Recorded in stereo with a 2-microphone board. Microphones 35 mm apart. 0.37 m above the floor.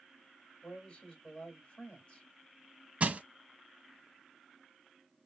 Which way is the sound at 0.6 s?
40° left (ahead or behind).